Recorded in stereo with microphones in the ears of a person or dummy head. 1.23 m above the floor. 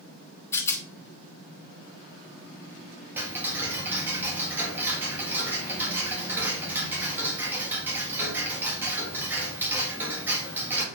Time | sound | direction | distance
0.5 | a rattle | 15° left (ahead or behind) | 1.0 m
3.2 | ticking | 10° right (ahead or behind) | 1.6 m